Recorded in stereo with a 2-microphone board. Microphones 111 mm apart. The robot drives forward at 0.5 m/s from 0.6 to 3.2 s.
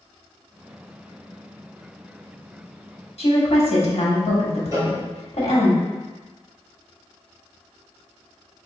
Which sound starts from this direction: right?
A cowbell, at 4.7 s.